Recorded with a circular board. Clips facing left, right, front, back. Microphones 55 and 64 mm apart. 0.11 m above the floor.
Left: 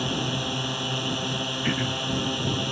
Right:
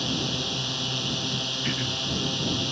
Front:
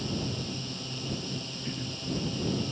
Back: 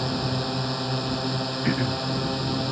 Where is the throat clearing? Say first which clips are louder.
Left 4 dB, back 15 dB; 160° left.